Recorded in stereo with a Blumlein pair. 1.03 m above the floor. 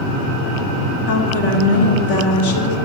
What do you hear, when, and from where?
1.1 s a woman speaking: 55° left, 2 m